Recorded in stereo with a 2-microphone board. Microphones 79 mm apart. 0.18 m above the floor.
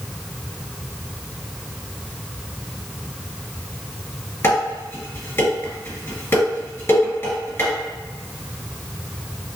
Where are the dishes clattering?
30° left (ahead or behind), 2.0 m.